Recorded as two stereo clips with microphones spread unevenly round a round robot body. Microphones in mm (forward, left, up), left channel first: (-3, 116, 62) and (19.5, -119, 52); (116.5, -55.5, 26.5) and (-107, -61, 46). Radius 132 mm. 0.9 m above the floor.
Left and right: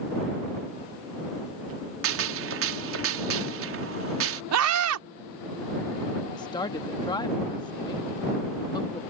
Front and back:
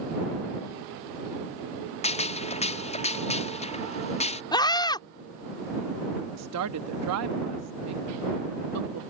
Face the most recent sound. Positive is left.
turn(degrees=170)